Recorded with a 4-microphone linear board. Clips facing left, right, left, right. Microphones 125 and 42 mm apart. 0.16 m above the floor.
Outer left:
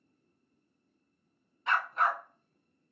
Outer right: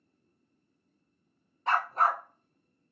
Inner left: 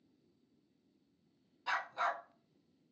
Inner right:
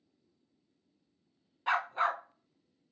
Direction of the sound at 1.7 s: 40° right (ahead or behind).